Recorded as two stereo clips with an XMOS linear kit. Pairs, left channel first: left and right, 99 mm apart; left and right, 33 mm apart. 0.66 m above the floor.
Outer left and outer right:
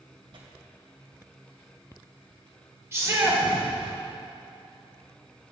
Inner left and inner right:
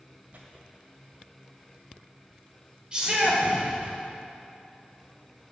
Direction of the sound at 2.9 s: 30° right (ahead or behind).